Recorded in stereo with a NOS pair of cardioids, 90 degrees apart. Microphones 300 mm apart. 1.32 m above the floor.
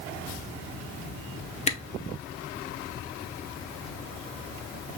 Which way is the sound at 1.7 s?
20° left.